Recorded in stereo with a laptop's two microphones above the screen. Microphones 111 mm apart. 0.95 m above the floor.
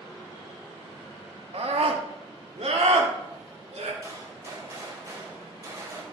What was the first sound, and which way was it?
A scream, 65° right (ahead or behind).